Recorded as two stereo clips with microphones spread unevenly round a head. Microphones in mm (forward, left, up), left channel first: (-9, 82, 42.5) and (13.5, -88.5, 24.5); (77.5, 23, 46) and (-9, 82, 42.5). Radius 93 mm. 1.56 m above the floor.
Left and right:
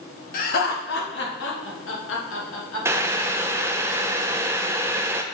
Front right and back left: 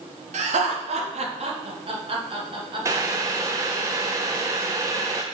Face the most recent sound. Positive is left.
turn(degrees=-160)